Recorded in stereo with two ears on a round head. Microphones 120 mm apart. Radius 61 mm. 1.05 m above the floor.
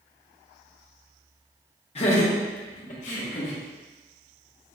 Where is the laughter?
45° left (ahead or behind), 1.1 m; by 3.6 s 55° left (ahead or behind), 1.4 m.